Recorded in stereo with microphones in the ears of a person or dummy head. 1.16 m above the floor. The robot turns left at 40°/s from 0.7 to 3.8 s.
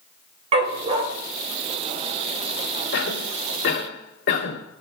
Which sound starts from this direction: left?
A cough, at 2.9 s.